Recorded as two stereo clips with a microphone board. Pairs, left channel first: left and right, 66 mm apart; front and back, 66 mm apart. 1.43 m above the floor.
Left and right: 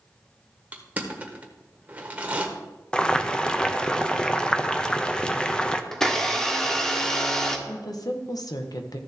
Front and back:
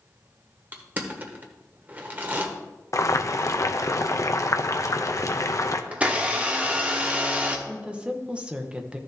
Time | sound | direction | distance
0.7 | crushing | 140° right | 1.3 m
2.9 | boiling | 15° left | 0.6 m
5.9 | a blender | 160° left | 1.0 m
7.7 | a woman speaking | 110° left | 0.9 m